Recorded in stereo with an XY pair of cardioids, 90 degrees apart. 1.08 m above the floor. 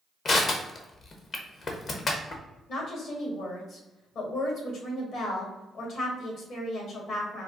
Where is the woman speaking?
70° left, 2 m.